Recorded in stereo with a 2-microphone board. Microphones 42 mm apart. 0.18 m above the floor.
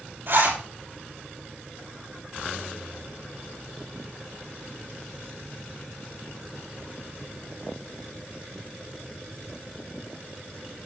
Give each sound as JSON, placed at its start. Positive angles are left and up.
{"t": 0.3, "sound": "a zipper", "side_deg": -50, "distance_m": 5.0}